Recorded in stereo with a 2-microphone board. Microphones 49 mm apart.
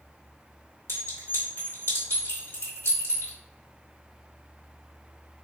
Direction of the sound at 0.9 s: 65° left (ahead or behind).